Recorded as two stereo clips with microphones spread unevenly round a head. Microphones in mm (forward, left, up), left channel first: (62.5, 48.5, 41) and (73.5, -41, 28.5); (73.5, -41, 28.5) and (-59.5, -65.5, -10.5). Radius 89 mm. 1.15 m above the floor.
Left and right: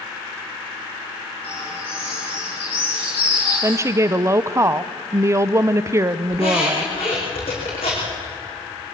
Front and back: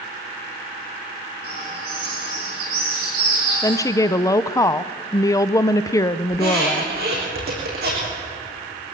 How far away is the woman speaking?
About 0.7 m.